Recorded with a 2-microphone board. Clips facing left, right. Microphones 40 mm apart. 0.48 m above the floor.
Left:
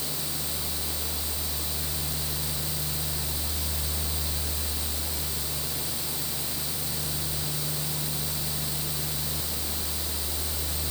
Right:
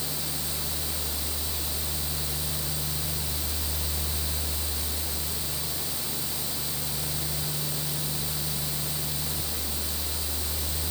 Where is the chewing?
I don't hear chewing.